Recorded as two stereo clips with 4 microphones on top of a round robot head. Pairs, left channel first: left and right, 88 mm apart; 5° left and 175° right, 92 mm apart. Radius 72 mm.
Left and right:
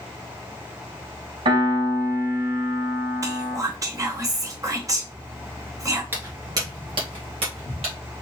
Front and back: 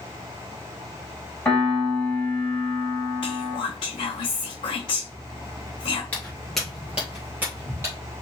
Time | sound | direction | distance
1.4 | a piano | 75° right | 2.5 m
3.2 | whispering | 40° right | 1.1 m
6.1 | footsteps | 60° right | 1.3 m